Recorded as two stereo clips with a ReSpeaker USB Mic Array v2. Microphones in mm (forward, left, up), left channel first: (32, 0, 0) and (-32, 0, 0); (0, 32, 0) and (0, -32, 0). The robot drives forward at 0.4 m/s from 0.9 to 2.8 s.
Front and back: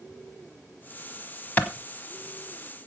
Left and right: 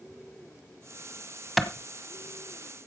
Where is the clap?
5° right, 1.0 m.